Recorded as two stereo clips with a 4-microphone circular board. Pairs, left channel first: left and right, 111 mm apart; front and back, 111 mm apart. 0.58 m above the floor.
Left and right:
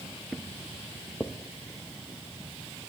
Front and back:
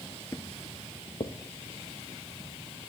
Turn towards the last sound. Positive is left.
turn(degrees=20)